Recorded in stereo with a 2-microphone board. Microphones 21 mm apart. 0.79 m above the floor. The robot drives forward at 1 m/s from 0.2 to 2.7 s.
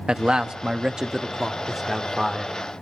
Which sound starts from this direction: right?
A man speaking, at 0.1 s.